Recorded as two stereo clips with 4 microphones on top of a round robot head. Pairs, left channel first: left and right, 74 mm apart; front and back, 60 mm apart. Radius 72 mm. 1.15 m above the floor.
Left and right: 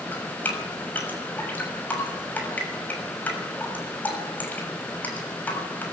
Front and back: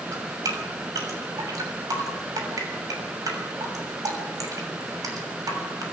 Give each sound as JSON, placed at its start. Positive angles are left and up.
{"t": 0.1, "sound": "dripping", "azimuth_deg": 155, "distance_m": 6.5}